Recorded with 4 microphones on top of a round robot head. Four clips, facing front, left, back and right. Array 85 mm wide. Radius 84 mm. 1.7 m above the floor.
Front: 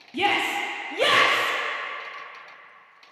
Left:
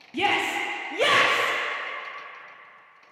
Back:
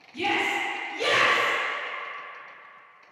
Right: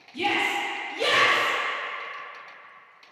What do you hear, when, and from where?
0.1 s a shout: 45° left, 0.9 m